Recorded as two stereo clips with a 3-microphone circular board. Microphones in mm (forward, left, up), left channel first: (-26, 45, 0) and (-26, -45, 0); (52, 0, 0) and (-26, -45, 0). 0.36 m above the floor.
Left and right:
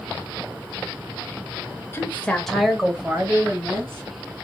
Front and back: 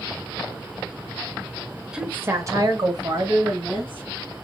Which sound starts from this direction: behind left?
A woman speaking, at 1.9 s.